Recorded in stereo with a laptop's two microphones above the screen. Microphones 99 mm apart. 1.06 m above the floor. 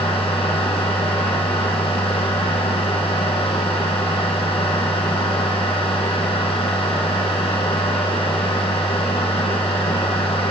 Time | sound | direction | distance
0.0 | a machine running | 70° left (ahead or behind) | 9.5 m